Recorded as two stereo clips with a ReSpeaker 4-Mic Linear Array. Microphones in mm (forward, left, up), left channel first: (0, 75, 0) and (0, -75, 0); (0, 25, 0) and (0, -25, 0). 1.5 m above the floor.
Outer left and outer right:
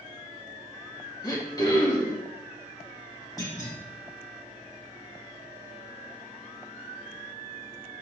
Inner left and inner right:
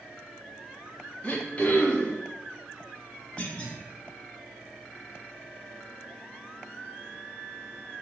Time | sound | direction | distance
1.2 | throat clearing | 25° left (ahead or behind) | 1.1 m
3.4 | a clunk | 25° left (ahead or behind) | 1.5 m